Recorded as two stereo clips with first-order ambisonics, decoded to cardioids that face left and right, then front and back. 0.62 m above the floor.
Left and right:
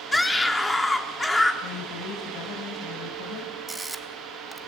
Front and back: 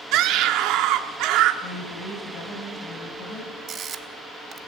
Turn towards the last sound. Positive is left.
turn(degrees=-155)